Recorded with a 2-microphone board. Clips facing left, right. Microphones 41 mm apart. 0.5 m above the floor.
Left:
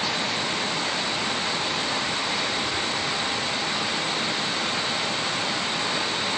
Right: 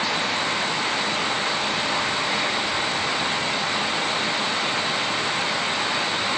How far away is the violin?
I don't hear a violin.